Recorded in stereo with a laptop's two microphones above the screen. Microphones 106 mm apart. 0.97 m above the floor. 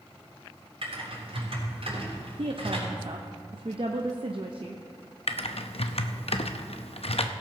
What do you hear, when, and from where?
0.8 s typing on a keyboard: 65° right (ahead or behind), 3.5 m
2.4 s a woman speaking: 55° right (ahead or behind), 0.8 m
5.3 s typing on a keyboard: 70° left (ahead or behind), 0.6 m